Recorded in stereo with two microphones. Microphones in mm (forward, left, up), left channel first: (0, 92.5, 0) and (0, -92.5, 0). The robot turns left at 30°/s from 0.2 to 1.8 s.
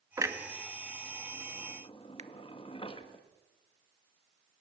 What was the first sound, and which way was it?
A clunk, 15° right (ahead or behind).